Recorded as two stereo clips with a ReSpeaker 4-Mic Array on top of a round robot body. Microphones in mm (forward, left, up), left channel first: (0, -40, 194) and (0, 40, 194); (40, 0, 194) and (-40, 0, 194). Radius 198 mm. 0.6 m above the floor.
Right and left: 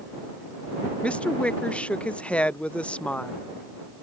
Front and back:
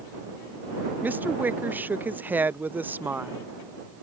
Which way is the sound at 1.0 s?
145° right.